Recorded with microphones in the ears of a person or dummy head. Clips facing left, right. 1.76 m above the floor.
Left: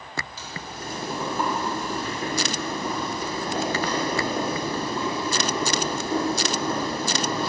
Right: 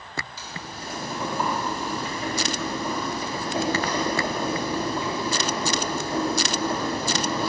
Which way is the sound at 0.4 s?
50° left (ahead or behind).